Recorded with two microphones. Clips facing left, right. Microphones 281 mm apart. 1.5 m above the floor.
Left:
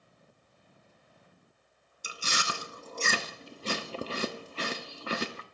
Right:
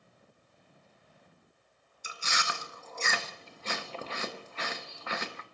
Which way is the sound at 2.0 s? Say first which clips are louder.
Left 2 dB; 35° left (ahead or behind).